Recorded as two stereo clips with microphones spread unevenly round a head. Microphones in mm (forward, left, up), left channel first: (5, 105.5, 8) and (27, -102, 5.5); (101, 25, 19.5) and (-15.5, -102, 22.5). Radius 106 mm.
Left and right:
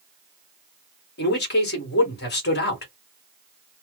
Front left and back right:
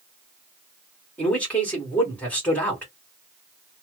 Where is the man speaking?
130° left, 1.4 m.